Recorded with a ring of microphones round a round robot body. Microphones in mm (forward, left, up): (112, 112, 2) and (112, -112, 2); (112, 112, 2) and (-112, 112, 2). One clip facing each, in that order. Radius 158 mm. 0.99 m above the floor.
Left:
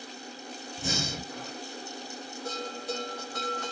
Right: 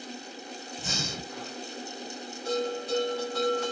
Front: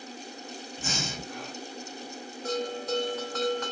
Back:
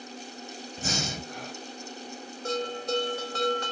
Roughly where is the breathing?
Behind left.